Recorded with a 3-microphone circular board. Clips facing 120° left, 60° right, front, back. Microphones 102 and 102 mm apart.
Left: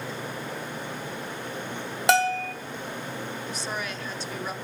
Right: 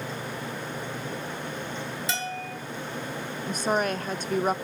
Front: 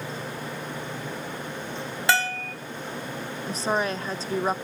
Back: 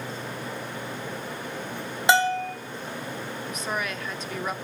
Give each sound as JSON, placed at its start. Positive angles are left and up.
{"t": 2.1, "sound": "a bell", "azimuth_deg": 110, "distance_m": 1.3}
{"t": 3.5, "sound": "a woman speaking", "azimuth_deg": -45, "distance_m": 0.8}